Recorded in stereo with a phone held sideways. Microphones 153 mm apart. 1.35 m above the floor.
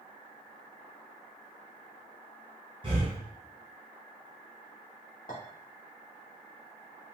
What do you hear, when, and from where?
2.8 s breathing: 35° right (ahead or behind), 1.3 m
5.3 s a clink: 60° left (ahead or behind), 1.5 m